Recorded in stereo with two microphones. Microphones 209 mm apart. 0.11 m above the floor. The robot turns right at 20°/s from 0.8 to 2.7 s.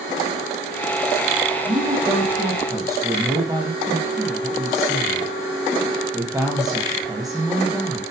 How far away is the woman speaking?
About 4 m.